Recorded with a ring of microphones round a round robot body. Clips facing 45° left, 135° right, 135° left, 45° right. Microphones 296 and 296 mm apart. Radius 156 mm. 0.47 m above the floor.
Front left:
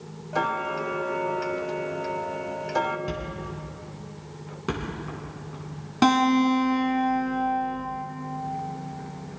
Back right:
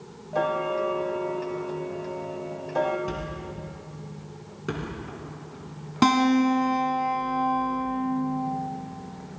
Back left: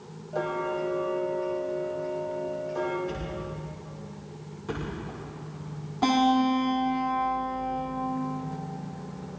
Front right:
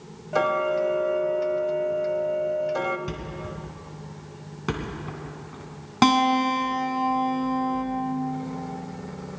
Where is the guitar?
50° right, 2 m.